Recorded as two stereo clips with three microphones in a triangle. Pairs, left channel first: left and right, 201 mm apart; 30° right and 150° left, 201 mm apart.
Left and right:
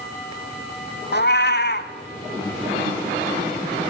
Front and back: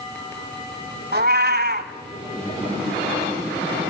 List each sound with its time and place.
1.1 s a cat meowing: 120° left, 1.0 m